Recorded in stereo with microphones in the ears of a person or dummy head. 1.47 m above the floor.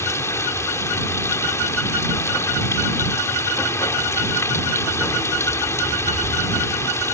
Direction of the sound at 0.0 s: 20° left (ahead or behind).